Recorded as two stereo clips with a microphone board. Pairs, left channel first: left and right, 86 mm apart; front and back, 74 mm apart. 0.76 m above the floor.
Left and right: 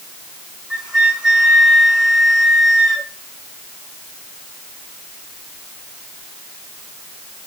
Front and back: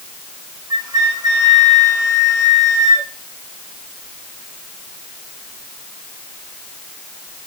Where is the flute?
175° right, 4.5 m.